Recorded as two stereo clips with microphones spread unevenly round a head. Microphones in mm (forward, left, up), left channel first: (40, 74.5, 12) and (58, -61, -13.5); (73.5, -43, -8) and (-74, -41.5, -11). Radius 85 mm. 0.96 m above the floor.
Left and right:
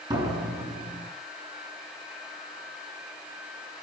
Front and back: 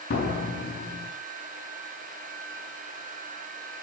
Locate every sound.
0.1 s a door slam: 20° right, 7.5 m